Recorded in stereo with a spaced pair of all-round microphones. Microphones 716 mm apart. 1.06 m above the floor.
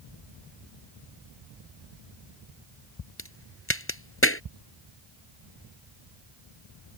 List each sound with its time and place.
3.2 s a crack: 15° left (ahead or behind)